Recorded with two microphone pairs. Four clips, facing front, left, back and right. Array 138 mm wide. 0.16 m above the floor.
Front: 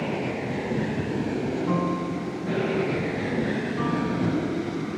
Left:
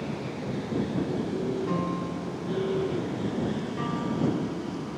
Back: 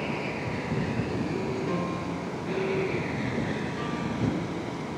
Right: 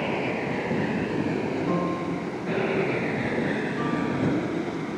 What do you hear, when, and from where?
0.0 s an aircraft: 70° right; by 5.0 s 60° right
1.7 s a piano: 20° right